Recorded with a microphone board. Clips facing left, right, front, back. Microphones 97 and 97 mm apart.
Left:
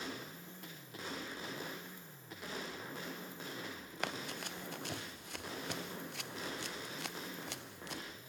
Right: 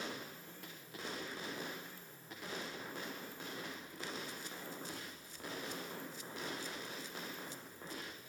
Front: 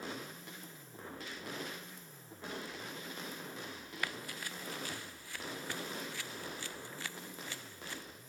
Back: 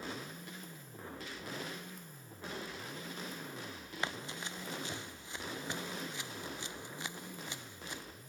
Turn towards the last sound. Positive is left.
turn(degrees=110)